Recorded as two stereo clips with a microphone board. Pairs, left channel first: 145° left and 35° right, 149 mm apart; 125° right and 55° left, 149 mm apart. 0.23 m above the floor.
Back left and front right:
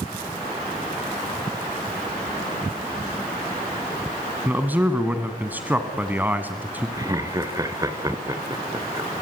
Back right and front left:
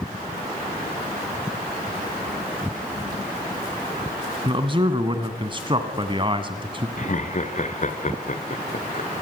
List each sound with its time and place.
4.5 s a man speaking: 35° left, 1.9 m
7.0 s laughter: 100° right, 2.5 m